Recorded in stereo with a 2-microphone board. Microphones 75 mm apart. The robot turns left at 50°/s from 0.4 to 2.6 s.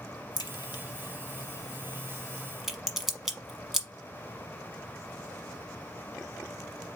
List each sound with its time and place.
0.4 s a crack: 75° left (ahead or behind), 1.0 m; by 3.9 s 5° right (ahead or behind), 1.0 m